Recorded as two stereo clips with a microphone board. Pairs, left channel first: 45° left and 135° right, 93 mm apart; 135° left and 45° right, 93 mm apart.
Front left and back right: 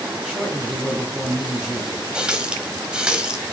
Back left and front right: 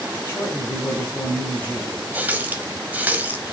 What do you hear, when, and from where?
0.2 s a man speaking: 145° left, 1.2 m
2.1 s a running tap: 70° right, 0.7 m